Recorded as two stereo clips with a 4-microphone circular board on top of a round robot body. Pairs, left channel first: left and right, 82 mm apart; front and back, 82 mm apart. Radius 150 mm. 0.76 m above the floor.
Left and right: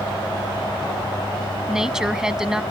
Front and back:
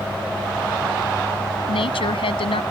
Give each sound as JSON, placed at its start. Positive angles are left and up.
{"t": 1.7, "sound": "a woman speaking", "azimuth_deg": -5}